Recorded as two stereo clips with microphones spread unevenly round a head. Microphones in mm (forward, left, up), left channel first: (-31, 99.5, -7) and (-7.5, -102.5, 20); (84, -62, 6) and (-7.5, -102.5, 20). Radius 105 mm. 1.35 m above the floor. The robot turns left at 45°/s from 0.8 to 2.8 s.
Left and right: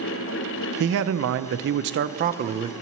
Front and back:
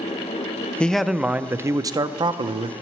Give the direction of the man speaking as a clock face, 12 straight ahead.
2 o'clock.